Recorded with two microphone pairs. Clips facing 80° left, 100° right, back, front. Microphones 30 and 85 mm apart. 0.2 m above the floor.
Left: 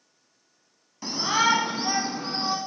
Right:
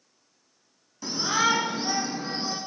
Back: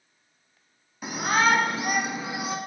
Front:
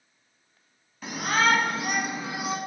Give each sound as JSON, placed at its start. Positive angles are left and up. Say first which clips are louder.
{"t": 1.0, "sound": "a shout", "louder": "left 2 dB, back 1 dB", "azimuth_deg": 120, "distance_m": 1.3}